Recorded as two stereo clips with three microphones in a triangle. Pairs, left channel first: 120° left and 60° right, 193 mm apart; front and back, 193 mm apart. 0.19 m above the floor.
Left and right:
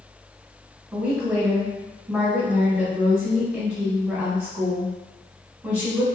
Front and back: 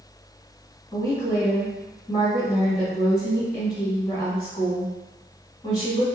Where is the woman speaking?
15° left, 1.0 m.